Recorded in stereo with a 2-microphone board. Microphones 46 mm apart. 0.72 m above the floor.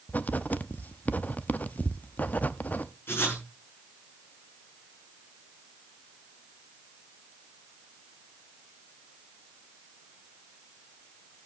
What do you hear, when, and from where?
0.1 s writing: 40° left (ahead or behind), 0.7 m
3.1 s writing: 60° left (ahead or behind), 8 m